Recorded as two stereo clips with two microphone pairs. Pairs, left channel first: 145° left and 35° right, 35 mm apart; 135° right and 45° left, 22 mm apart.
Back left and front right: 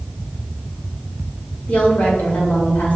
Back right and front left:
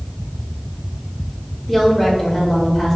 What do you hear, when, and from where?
1.7 s a woman speaking: 135° left, 1.7 m